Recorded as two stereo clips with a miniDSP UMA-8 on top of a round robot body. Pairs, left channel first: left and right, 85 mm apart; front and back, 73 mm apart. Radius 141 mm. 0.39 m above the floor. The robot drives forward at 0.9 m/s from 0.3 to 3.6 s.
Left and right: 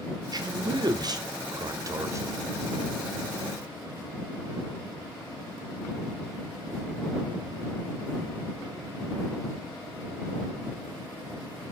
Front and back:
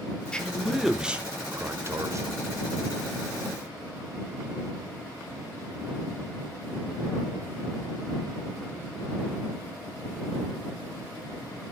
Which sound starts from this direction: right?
A man speaking, at 0.3 s.